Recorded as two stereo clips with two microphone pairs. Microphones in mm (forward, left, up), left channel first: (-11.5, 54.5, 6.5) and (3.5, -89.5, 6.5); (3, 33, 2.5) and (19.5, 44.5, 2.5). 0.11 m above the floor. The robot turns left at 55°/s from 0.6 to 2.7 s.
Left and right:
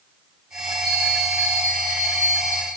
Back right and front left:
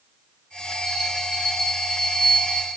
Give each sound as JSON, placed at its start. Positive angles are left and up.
{"t": 0.8, "sound": "a bell", "azimuth_deg": -25, "distance_m": 5.5}